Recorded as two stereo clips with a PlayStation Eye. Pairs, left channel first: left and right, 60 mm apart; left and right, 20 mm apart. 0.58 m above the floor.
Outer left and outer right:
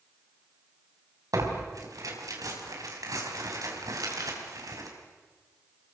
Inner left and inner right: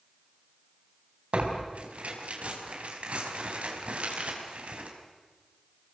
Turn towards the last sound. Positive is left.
turn(degrees=-85)